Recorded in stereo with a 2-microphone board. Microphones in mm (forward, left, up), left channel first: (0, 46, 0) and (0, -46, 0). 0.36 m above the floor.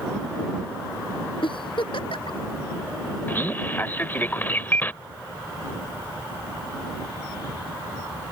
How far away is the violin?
I don't hear a violin.